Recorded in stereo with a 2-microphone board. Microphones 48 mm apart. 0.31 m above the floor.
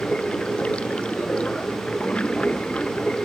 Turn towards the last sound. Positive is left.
turn(degrees=25)  # may be behind; listen again after turning